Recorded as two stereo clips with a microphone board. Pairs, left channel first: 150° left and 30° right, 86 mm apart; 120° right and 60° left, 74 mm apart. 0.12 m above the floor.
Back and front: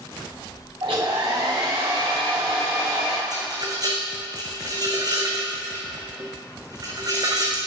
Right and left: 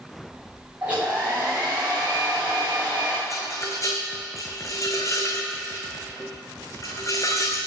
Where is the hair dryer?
10° right, 6.5 m.